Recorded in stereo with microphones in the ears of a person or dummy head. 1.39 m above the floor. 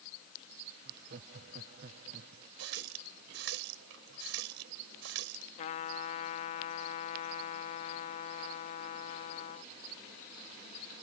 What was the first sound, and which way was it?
Laughter, 55° right (ahead or behind).